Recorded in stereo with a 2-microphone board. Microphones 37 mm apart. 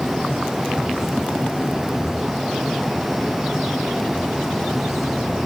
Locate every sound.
Only background noise.